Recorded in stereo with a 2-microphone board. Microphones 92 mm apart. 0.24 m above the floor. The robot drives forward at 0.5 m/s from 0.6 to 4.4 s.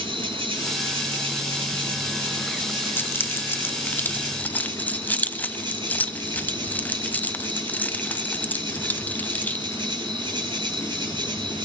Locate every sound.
0.0 s an insect: 70° right (ahead or behind), 7 m; by 11.7 s 60° right (ahead or behind), 8 m
3.0 s keys jangling: 20° left (ahead or behind), 0.7 m